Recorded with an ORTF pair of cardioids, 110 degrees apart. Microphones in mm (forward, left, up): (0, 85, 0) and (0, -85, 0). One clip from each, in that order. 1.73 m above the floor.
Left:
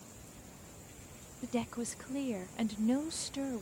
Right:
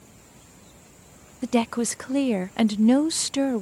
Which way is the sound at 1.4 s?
60° right.